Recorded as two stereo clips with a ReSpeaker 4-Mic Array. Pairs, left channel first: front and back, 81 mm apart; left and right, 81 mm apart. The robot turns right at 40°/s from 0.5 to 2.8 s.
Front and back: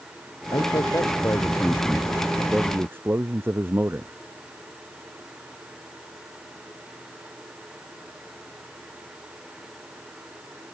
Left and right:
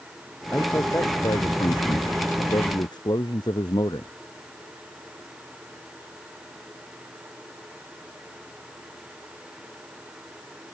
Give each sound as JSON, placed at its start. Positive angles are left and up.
{"t": 0.5, "sound": "a man speaking", "azimuth_deg": 25}